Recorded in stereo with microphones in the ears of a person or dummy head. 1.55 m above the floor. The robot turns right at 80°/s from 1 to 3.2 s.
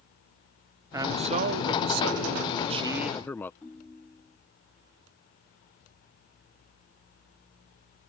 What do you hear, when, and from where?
0.9 s a man speaking: 170° right; by 3.5 s 10° left
3.6 s a ringtone: 5° left (ahead or behind)